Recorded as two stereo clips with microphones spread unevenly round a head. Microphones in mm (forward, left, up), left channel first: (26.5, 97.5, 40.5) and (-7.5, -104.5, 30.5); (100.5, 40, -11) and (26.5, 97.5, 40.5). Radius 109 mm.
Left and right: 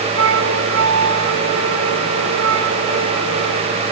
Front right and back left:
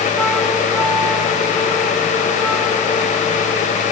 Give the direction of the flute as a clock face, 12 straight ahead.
4 o'clock.